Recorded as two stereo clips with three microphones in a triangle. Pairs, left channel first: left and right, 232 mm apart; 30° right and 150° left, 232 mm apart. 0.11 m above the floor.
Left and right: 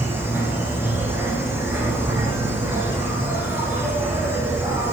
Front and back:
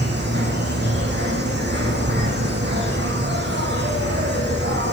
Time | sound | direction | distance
0.0 | an insect | 170° right | 5.5 m